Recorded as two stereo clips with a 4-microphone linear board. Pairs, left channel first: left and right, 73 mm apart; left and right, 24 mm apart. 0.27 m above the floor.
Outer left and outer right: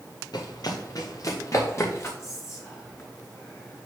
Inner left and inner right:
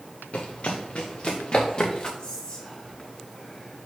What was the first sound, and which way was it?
Running footsteps, 65° left (ahead or behind).